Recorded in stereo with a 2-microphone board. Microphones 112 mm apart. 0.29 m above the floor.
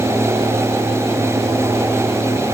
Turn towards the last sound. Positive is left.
No sound to turn to.